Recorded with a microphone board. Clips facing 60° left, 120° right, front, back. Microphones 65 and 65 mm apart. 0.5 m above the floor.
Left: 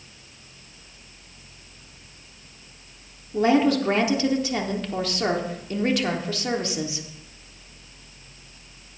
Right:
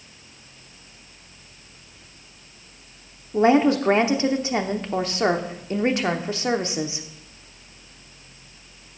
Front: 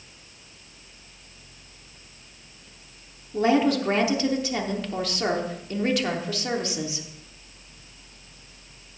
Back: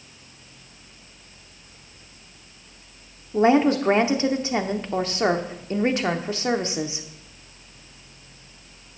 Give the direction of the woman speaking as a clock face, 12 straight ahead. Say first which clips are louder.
Right 2 dB, back 3 dB; 5 o'clock.